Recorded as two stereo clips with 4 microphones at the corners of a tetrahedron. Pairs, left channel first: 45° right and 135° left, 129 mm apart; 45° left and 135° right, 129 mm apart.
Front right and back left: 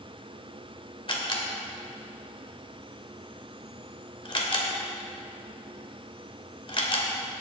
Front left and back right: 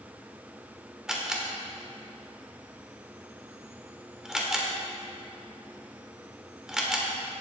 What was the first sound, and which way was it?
A camera shutter, 50° right.